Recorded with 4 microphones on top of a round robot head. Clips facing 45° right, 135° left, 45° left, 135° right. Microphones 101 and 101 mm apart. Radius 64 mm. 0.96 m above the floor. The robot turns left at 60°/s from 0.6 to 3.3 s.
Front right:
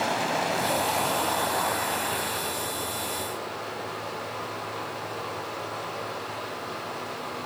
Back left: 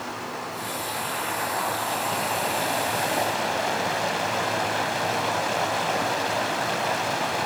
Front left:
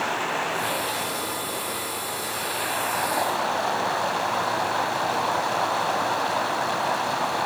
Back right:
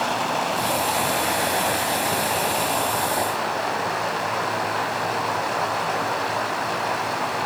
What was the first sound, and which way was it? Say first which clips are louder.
Running water: front right 6 dB, back right 3 dB; 70° right.